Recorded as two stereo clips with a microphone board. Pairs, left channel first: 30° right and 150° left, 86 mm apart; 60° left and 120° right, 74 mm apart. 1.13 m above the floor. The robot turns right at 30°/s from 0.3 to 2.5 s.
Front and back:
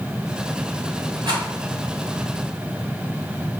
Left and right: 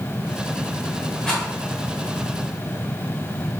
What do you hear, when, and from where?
1.2 s a rattle: 140° left, 3 m; by 1.4 s 145° left, 3 m